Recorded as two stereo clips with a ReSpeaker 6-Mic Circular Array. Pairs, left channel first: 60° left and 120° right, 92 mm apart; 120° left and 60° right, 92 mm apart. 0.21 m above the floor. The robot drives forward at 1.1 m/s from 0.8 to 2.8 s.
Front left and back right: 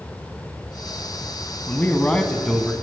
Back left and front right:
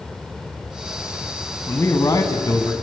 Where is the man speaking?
100° left, 1.3 m; by 2.7 s 150° left, 1.8 m.